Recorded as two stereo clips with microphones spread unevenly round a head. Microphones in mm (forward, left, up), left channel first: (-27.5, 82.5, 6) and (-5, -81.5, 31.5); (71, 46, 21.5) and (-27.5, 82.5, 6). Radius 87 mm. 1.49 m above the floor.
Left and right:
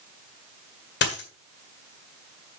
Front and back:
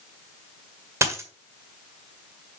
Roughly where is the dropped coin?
Left.